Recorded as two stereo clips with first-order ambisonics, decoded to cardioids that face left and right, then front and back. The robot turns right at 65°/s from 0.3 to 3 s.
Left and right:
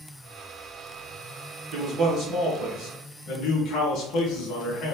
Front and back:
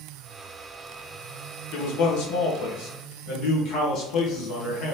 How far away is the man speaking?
About 1.5 m.